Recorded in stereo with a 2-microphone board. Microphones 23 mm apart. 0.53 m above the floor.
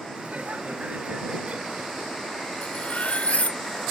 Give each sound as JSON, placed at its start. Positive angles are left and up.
{"t": 0.2, "sound": "laughter", "side_deg": -55}
{"t": 2.6, "sound": "cutlery clinking", "side_deg": 65}